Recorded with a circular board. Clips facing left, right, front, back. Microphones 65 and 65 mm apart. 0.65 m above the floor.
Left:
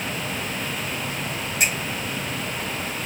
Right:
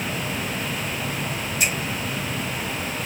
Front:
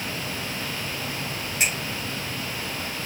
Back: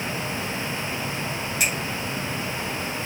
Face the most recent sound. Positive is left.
turn(degrees=60)